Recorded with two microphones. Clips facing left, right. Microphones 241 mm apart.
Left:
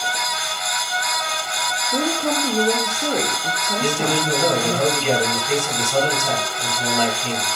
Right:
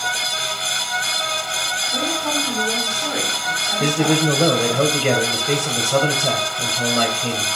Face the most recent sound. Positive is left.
turn(degrees=-70)  # may be behind; listen again after turning